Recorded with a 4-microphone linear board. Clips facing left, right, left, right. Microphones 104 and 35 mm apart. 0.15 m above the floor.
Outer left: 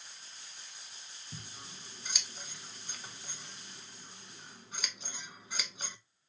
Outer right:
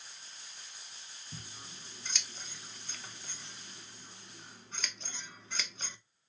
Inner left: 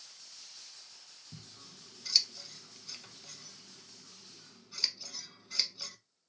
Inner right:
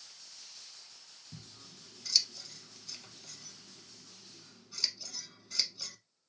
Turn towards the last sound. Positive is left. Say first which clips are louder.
# outer left 1 dB, even
turn(degrees=10)  # may be behind; listen again after turning